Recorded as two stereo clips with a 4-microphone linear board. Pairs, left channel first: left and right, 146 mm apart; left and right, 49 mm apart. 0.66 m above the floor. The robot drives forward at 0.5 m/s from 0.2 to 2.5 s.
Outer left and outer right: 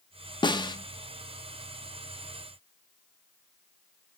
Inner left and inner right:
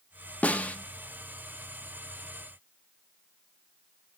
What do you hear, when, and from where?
0.4 s a snare drum: 30° left (ahead or behind), 1.0 m